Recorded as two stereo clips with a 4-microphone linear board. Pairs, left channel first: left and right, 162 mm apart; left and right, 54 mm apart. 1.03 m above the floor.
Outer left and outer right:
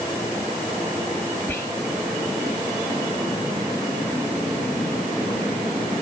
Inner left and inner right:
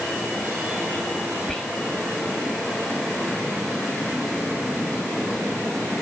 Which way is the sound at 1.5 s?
15° left (ahead or behind).